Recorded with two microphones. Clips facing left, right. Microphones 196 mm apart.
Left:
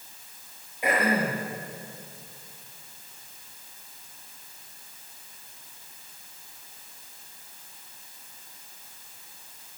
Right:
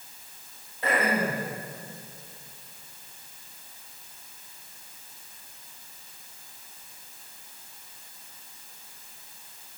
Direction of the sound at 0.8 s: 15° left (ahead or behind).